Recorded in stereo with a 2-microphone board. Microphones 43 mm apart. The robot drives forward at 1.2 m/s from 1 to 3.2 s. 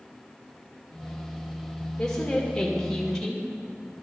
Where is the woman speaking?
15° left (ahead or behind), 1.1 m; by 3.5 s 10° left (ahead or behind), 1.5 m.